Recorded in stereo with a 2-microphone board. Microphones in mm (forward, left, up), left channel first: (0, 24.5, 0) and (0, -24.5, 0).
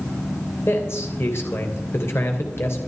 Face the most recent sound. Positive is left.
turn(degrees=55)  # may be behind; listen again after turning